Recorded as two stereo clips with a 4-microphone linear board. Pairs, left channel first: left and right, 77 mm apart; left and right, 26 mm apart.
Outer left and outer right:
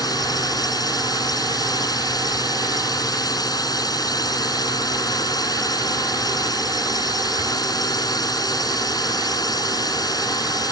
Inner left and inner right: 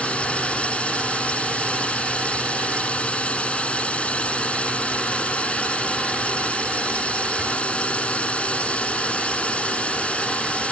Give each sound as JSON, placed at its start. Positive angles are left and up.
{"t": 0.0, "sound": "a drone", "side_deg": 60}